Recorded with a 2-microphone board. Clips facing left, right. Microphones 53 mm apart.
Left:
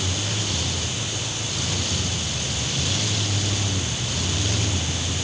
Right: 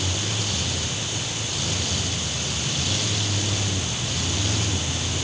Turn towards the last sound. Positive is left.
No sound to turn to.